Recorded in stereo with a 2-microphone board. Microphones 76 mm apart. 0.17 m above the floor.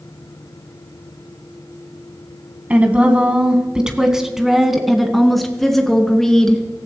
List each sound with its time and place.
2.7 s a woman speaking: 20° right (ahead or behind), 1.6 m; by 6.6 s 10° left (ahead or behind), 3 m